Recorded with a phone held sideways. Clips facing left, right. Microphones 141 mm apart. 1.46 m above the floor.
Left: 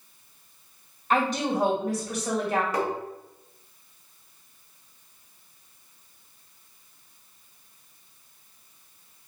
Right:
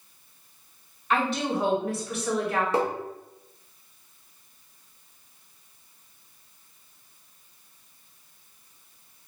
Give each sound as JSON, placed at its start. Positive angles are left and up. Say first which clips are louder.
{"t": 1.1, "sound": "a woman speaking", "louder": "left 1 dB", "side_deg": 35, "distance_m": 1.8}
{"t": 2.7, "sound": "tapping", "louder": "right 2 dB", "side_deg": -25, "distance_m": 0.8}